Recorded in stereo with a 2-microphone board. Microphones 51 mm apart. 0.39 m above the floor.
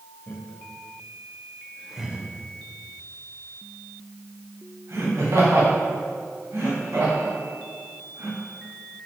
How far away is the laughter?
About 1.8 m.